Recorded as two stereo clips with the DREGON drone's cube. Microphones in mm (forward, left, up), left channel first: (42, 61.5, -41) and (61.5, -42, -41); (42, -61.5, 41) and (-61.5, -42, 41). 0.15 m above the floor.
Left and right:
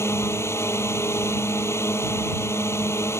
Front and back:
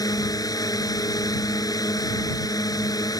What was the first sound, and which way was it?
A drone, 40° left.